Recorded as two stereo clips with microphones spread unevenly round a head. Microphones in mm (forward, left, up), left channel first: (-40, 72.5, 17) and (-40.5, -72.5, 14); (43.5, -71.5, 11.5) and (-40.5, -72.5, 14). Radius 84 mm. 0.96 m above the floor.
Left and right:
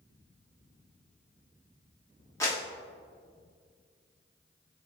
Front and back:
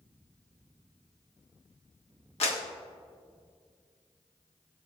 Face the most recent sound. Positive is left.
turn(degrees=15)